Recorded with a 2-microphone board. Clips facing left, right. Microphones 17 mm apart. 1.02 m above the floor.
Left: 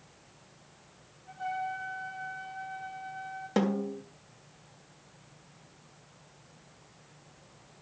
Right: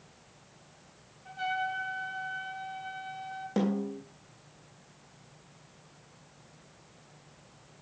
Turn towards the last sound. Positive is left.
turn(degrees=20)  # may be behind; listen again after turning